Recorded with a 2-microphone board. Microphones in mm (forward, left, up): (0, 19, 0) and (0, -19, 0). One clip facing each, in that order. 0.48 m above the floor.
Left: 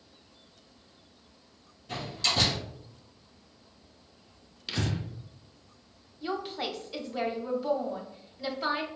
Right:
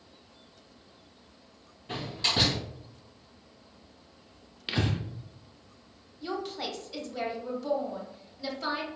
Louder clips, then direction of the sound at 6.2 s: Left 1 dB; 15° left (ahead or behind).